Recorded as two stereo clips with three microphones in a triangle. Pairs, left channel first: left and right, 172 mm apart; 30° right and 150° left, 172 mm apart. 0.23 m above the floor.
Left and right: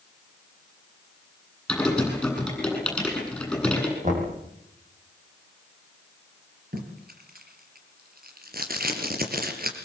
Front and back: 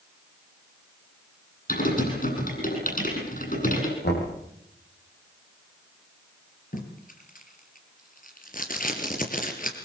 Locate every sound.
1.7 s typing on a keyboard: 5° left, 9 m
4.0 s knocking: 45° right, 7 m
6.7 s tape being pulled: 65° right, 4 m